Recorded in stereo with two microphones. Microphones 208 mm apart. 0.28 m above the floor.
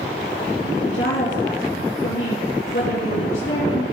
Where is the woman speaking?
70° left (ahead or behind), 3.5 m.